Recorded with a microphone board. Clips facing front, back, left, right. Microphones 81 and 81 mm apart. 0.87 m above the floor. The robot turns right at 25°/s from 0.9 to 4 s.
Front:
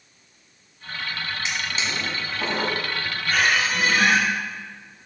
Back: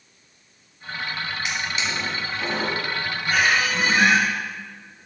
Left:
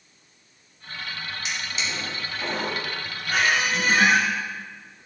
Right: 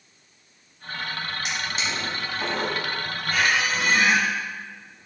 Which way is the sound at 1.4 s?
65° right.